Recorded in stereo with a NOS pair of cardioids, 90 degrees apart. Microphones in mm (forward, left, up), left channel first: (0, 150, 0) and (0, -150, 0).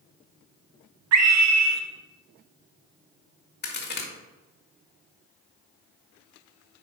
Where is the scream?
60° right, 1.6 m.